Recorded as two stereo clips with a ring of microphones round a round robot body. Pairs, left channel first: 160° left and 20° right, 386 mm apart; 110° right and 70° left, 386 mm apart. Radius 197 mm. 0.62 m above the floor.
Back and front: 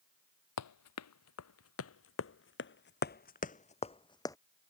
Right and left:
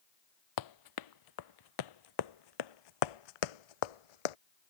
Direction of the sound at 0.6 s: 155° right.